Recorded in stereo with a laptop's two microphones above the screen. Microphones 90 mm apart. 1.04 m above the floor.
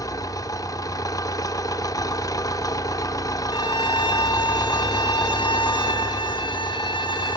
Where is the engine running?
40° left (ahead or behind), 0.8 m.